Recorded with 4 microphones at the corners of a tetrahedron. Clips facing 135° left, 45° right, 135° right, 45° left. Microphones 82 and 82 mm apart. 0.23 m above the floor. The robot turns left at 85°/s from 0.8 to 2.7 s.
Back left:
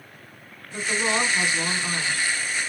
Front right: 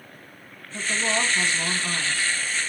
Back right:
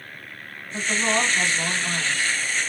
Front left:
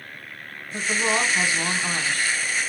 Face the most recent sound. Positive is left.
turn(degrees=-15)